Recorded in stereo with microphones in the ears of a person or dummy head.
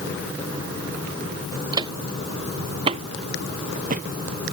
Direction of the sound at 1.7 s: 25° right (ahead or behind).